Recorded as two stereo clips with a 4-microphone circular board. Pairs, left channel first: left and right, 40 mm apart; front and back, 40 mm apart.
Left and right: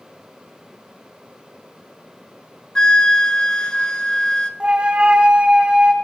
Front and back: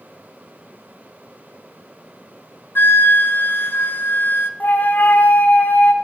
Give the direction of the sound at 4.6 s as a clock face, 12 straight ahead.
1 o'clock.